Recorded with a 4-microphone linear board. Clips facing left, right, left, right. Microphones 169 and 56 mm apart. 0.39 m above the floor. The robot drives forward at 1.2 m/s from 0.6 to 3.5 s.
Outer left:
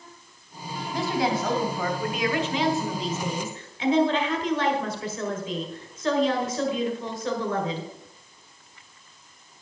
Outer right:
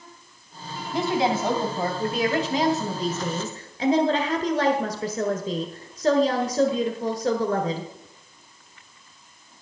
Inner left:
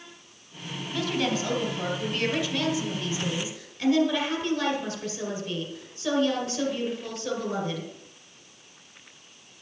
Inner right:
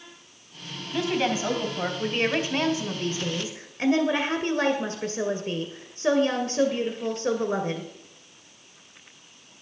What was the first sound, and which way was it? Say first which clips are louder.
A woman speaking: outer right 3 dB, inner right 2 dB; 20° right (ahead or behind).